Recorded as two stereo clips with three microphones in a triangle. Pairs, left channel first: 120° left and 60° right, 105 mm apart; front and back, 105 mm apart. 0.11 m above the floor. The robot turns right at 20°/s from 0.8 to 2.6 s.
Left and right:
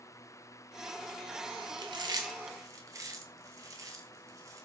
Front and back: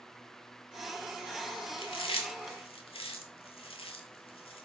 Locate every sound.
1.8 s chewing: 20° right, 0.5 m; by 4.7 s 5° right, 0.5 m